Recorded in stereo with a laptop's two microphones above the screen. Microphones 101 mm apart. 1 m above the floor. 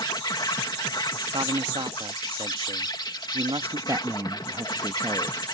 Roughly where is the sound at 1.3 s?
Right.